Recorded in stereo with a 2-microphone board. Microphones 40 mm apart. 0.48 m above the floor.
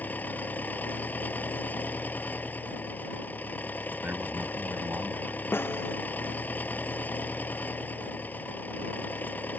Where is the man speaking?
60° right (ahead or behind).